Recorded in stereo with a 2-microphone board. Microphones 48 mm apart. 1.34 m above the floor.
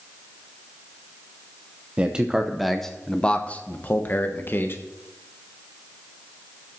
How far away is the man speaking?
About 0.8 m.